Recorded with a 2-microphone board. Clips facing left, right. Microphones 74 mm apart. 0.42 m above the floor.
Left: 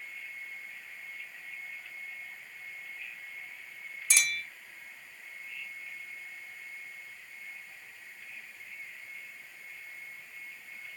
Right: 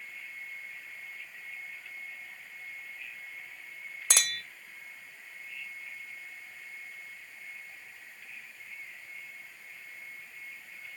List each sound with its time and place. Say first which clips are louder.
4.1 s a clink: left 3 dB; 65° right (ahead or behind), 0.8 m